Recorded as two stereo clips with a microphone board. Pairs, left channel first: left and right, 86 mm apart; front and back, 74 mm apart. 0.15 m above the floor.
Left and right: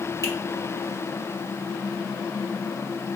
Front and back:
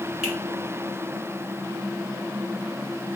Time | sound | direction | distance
0.2 | a finger snap | 105° left | 1.5 m